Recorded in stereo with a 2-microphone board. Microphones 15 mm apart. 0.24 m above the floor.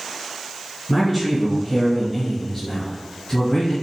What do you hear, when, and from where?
0.9 s a man speaking: 5° right (ahead or behind), 1.6 m; by 3.7 s 35° left (ahead or behind), 1.9 m